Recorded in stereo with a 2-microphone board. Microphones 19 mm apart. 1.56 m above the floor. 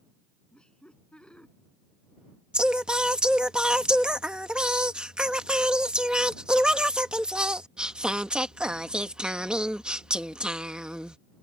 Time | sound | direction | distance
0.5 | laughter | 55° left (ahead or behind) | ?
2.5 | singing | 55° right (ahead or behind) | ?